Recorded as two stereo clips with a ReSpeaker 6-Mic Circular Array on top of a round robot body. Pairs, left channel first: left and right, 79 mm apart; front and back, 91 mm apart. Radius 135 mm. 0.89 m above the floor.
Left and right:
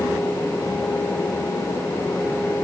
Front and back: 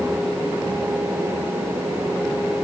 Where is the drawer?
No drawer in this recording.